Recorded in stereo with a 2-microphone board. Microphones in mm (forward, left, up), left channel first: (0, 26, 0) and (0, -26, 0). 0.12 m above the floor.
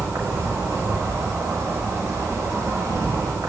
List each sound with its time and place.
0.0 s an insect: 65° right (ahead or behind), 4.5 m